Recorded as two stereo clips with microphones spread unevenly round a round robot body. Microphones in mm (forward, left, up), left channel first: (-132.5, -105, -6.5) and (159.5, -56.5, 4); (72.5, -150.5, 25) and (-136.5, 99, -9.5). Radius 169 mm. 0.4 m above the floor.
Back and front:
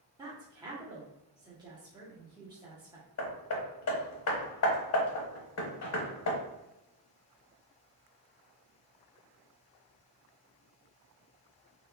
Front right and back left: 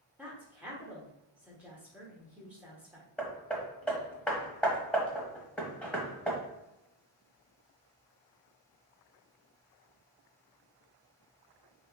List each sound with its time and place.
0.2 s a woman speaking: 70° left, 1.2 m
3.2 s hammering: 140° right, 1.1 m